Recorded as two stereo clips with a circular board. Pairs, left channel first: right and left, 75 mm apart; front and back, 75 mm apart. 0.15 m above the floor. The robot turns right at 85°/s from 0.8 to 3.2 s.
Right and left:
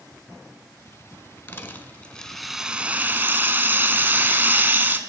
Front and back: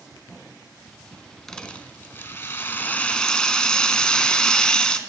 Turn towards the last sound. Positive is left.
turn(degrees=70)